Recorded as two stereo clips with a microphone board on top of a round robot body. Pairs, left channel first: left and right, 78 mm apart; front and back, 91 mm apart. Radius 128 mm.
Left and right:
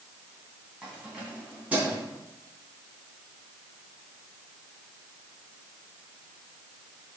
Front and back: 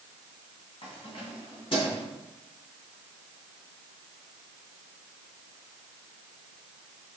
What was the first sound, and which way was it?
Keys jangling, 15° right.